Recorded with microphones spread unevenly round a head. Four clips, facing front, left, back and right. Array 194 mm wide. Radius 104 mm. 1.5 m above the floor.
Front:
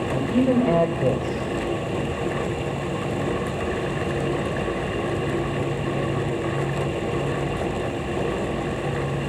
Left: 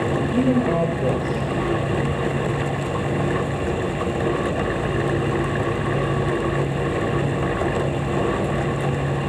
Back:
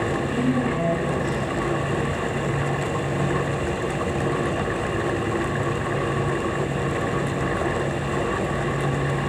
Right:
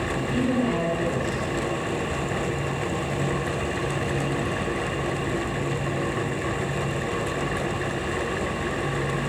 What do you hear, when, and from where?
0.1 s a man speaking: 40° left, 8.5 m